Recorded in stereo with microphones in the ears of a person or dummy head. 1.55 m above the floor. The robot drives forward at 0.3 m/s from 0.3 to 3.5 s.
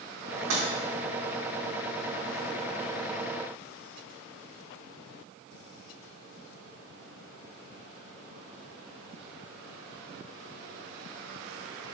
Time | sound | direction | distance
0.5 | breaking glass | 75° right (ahead or behind) | 3 m